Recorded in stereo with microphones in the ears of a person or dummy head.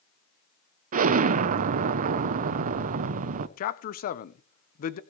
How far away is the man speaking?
About 0.8 m.